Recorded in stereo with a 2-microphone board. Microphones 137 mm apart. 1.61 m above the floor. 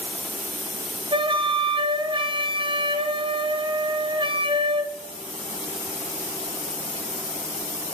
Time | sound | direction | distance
1.1 | a flute | 40° right (ahead or behind) | 0.6 m